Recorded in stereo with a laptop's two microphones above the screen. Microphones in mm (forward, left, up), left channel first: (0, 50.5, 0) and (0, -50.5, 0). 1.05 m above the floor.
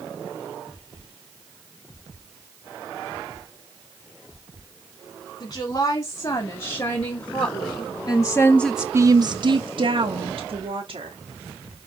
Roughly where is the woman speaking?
Left.